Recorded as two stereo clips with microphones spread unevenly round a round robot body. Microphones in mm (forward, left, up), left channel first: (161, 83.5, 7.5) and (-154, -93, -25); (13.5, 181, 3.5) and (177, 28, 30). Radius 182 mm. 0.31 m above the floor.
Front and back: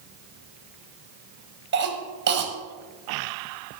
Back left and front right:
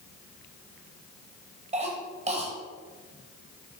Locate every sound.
1.7 s a cough: 105° right, 1.2 m